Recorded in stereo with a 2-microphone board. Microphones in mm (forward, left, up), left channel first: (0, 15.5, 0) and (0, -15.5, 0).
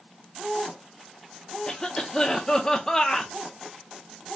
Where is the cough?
25° left (ahead or behind), 0.7 m.